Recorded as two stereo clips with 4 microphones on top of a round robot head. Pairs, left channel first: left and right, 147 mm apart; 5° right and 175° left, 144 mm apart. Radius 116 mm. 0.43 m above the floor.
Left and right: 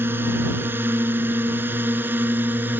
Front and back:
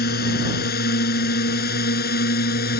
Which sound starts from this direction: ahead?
A drone, at 0.0 s.